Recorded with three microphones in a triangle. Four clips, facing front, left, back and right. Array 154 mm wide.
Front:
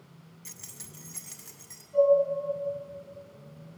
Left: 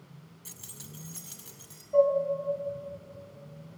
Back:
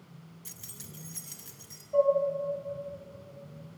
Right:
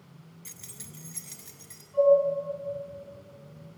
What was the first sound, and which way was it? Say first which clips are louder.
Keys jangling: even, back 1 dB; 25° left.